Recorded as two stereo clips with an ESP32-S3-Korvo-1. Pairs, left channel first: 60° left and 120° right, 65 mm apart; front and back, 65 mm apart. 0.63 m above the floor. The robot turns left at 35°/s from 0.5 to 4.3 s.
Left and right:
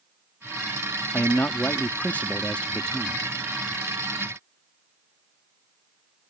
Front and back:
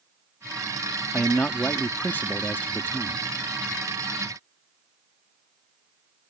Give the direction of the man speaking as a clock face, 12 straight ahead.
10 o'clock.